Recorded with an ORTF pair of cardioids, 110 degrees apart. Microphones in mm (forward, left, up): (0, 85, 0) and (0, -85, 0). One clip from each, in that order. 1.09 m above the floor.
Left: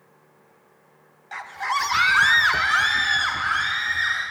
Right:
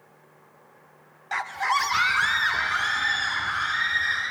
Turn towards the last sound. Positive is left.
turn(degrees=70)